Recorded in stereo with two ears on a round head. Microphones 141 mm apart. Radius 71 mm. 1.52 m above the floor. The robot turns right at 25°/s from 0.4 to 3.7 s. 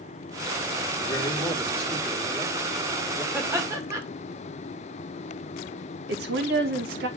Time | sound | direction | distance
1.0 | a man speaking | 150° left | 3.5 m
3.3 | laughter | 10° right (ahead or behind) | 2 m
6.1 | a woman speaking | 75° right (ahead or behind) | 1.5 m